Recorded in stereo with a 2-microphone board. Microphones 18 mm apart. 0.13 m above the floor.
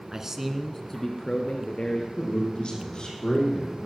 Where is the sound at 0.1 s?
30° right (ahead or behind), 1.3 m; by 2.1 s 65° left (ahead or behind), 2.5 m.